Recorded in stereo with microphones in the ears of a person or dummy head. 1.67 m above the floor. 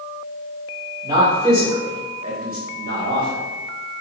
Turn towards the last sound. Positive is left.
turn(degrees=-75)  # may be behind; listen again after turning